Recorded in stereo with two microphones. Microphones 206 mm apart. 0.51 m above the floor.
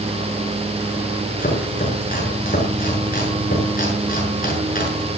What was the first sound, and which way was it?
Chopping, 45° left (ahead or behind).